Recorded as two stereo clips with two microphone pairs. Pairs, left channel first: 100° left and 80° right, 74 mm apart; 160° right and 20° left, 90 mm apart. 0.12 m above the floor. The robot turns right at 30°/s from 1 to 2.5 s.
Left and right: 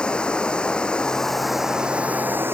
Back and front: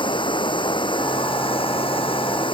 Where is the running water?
175° left; by 2.5 s 140° right.